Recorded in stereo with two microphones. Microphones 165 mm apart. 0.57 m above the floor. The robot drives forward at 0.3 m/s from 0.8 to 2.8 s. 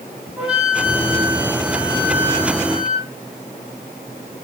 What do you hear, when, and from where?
0.4 s a flute: 10° right (ahead or behind), 5.5 m